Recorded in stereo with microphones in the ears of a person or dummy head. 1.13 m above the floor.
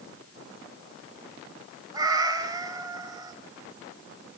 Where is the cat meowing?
20° right (ahead or behind), 3.5 m.